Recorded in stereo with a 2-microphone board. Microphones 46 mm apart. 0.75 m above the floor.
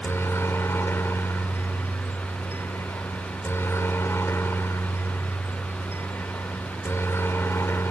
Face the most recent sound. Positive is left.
turn(degrees=60)  # may be behind; listen again after turning